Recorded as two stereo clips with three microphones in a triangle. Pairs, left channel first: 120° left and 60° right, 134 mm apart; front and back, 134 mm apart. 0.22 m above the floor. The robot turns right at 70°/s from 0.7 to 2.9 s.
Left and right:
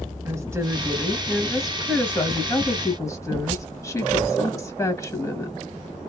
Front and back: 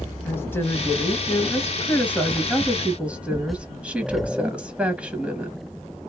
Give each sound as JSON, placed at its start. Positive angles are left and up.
{"t": 0.2, "sound": "a woman speaking", "azimuth_deg": -40, "distance_m": 1.0}